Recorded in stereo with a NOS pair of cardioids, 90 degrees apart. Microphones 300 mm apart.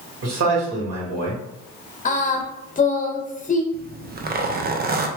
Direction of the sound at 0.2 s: 65° right.